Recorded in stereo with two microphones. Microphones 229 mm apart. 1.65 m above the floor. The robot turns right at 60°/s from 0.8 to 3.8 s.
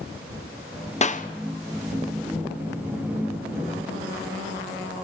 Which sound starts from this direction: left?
A clap, at 1.0 s.